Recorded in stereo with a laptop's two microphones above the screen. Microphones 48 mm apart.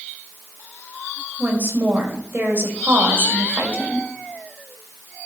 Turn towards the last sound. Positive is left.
turn(degrees=-45)  # may be behind; listen again after turning